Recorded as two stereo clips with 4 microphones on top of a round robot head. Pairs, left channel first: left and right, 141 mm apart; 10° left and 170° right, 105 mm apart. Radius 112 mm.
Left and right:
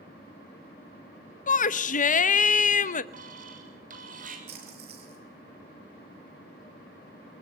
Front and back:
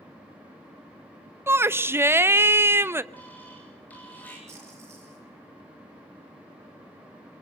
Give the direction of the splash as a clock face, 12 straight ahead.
3 o'clock.